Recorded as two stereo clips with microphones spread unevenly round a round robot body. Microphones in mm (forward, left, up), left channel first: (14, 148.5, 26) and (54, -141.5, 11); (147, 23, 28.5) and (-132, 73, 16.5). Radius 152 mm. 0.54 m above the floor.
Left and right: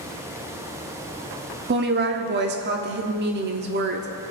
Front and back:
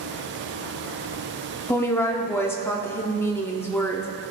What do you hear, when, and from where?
1.7 s a woman speaking: 90° right, 0.9 m